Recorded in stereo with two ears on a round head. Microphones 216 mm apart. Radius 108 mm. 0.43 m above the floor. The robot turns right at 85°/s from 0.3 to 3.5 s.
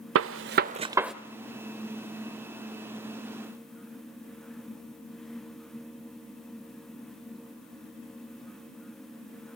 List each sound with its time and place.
0.1 s a gunshot: 60° right (ahead or behind), 0.6 m; by 1.1 s centre (ahead or behind), 0.6 m